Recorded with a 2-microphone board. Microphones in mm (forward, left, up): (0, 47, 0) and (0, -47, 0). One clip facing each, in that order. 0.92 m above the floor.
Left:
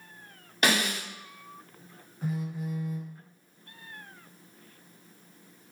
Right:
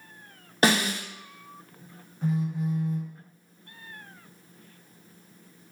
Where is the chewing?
No chewing in this recording.